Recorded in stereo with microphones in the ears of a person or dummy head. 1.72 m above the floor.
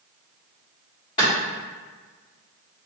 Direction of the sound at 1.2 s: 30° left (ahead or behind).